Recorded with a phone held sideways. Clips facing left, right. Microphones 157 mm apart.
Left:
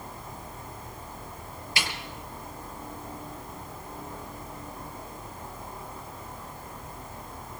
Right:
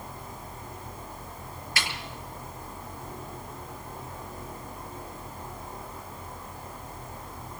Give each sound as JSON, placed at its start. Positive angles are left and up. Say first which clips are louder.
{"t": 1.8, "sound": "a snare drum", "louder": "left 1 dB", "side_deg": 15, "distance_m": 5.0}